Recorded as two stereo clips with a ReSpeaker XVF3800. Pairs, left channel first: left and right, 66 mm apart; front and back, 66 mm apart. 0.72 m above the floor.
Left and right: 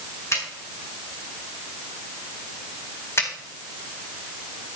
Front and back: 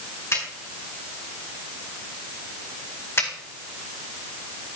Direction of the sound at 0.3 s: 50° left.